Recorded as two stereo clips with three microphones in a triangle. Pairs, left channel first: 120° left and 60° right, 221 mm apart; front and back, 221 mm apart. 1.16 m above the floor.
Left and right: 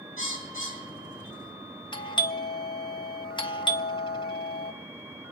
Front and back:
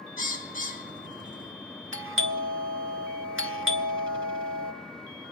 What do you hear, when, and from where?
0.2 s a bird: 50° right, 3.5 m
1.9 s a doorbell: 170° right, 1.0 m